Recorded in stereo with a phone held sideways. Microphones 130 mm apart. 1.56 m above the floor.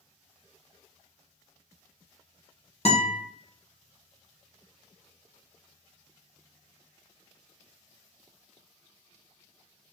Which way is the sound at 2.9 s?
50° left (ahead or behind).